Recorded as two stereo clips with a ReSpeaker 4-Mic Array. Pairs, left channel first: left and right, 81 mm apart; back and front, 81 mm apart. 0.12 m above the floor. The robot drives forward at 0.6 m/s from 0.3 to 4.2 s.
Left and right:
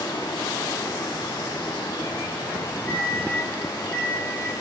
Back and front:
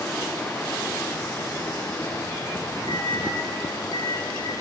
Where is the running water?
115° left, 5.5 m; by 4.6 s 135° left, 7 m.